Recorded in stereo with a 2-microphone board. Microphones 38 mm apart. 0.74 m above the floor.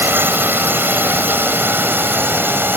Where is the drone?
70° right (ahead or behind).